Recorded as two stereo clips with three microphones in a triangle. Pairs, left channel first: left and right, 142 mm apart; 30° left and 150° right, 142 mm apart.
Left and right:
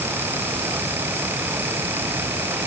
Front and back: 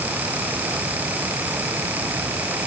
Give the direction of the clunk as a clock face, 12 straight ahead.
No clunk in this recording.